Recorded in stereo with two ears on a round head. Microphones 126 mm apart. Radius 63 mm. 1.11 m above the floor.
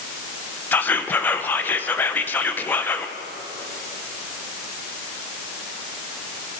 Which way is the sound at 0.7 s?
15° left (ahead or behind).